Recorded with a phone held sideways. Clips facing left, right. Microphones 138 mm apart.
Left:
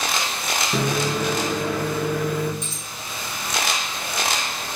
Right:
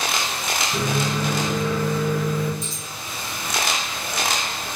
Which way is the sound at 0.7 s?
65° left (ahead or behind).